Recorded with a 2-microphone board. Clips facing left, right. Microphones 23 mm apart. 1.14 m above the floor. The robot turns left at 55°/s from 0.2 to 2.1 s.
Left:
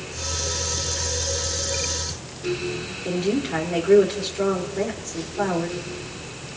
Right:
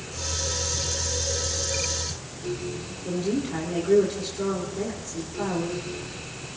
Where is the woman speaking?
30° left (ahead or behind), 3.5 m.